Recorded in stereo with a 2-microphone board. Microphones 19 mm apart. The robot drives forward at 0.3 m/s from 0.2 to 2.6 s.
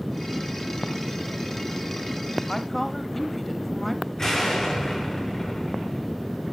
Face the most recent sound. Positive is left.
turn(degrees=15)  # may be behind; listen again after turning